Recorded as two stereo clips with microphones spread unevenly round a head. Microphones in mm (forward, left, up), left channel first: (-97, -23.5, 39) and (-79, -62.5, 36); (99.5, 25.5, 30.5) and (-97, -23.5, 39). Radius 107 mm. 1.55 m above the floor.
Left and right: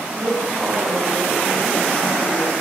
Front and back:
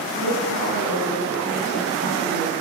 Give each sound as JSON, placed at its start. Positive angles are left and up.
{"t": 0.1, "sound": "a woman speaking", "azimuth_deg": 0, "distance_m": 9.5}